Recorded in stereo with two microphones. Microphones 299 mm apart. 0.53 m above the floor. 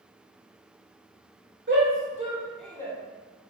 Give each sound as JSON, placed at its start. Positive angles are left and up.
{"t": 1.7, "sound": "a shout", "side_deg": -40, "distance_m": 1.7}